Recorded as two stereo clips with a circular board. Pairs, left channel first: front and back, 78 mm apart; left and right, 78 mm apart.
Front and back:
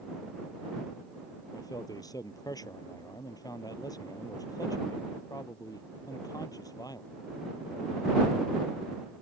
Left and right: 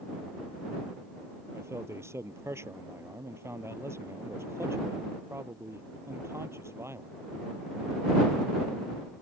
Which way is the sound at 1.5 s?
35° right.